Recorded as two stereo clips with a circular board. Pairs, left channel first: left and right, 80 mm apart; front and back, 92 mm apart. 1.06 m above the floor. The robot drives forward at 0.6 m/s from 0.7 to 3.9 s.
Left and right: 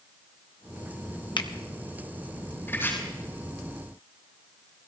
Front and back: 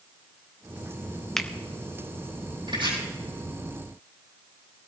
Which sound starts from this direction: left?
A finger snap, at 1.4 s.